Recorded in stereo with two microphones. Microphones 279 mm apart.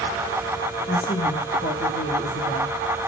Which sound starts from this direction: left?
A woman speaking, at 0.9 s.